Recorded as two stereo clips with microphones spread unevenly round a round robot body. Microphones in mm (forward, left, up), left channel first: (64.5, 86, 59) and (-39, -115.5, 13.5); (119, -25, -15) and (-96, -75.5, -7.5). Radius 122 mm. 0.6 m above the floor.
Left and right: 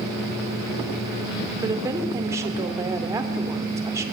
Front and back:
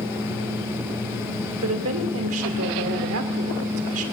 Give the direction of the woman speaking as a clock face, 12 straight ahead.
6 o'clock.